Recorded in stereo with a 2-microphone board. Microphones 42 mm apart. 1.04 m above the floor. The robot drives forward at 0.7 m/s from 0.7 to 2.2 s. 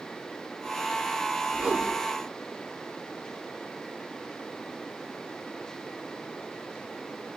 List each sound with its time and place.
1.5 s a whoosh: 25° right (ahead or behind), 2.0 m